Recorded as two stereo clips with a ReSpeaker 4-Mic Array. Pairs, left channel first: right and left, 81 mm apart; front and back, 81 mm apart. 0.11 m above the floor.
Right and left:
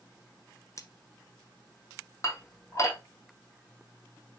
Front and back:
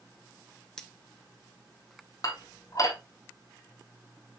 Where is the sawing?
I don't hear sawing.